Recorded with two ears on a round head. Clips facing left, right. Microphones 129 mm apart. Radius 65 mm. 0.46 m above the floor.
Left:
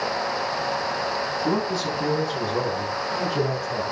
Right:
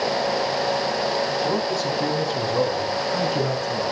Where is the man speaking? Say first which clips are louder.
Right 1 dB; 5° left (ahead or behind), 5.5 m; by 3.9 s 15° right (ahead or behind), 5 m.